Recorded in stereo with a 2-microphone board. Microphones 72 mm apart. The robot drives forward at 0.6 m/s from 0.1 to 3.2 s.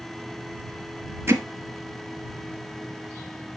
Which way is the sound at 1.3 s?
40° right (ahead or behind).